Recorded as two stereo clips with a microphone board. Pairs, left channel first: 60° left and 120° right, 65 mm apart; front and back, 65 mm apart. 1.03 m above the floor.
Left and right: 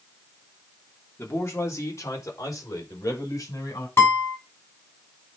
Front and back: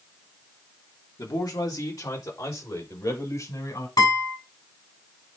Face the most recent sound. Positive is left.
turn(degrees=10)